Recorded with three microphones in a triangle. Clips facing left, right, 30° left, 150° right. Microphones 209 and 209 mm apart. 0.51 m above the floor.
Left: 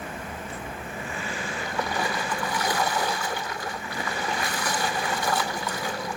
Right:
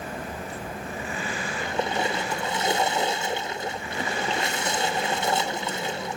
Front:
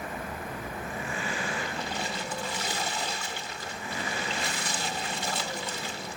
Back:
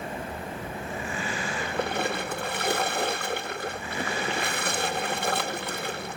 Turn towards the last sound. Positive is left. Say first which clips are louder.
# right 3 dB, back 6 dB
turn(degrees=-155)